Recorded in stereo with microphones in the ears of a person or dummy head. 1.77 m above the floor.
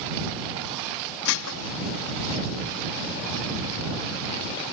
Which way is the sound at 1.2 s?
70° left (ahead or behind).